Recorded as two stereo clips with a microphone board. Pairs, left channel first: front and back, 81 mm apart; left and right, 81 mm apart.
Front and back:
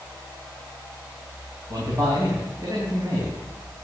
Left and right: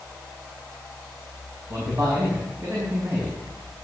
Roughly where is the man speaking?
Behind right.